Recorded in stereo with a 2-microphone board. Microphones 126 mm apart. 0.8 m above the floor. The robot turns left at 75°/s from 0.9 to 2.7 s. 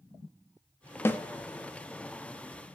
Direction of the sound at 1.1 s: 15° left (ahead or behind).